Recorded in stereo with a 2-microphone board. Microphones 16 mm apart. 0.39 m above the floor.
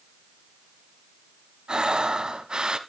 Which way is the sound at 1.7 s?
80° right.